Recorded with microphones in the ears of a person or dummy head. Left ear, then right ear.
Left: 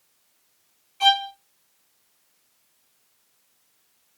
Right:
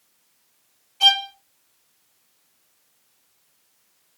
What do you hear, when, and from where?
1.0 s a violin: 15° left (ahead or behind), 1.2 m